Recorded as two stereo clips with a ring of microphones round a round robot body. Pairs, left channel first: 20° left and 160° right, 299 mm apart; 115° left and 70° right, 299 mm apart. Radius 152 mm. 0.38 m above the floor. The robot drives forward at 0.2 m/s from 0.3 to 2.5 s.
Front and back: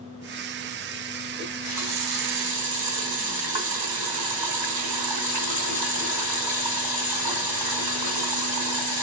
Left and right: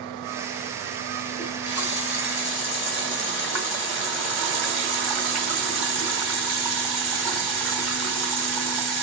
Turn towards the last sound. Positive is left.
turn(degrees=-155)